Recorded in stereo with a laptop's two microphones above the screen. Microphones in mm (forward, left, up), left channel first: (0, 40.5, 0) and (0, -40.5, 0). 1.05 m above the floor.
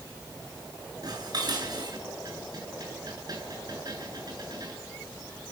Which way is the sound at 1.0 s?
55° right (ahead or behind).